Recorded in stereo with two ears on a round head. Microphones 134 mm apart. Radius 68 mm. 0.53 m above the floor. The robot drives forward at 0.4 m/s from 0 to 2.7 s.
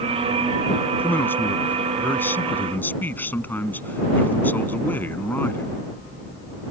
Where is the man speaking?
15° left (ahead or behind); by 5.8 s 10° left (ahead or behind).